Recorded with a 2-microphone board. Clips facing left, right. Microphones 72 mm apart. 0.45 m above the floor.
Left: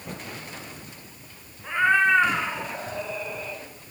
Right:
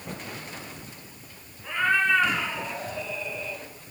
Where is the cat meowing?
25° left (ahead or behind), 3.5 m; by 3.6 s 55° left (ahead or behind), 3 m.